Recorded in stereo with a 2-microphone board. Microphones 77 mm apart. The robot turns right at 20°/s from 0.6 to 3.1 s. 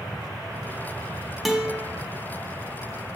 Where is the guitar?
Centre (ahead or behind), 0.6 m; by 1.9 s 10° right (ahead or behind), 0.6 m.